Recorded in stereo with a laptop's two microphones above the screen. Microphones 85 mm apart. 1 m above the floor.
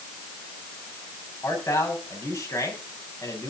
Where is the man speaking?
35° left (ahead or behind), 6.5 m.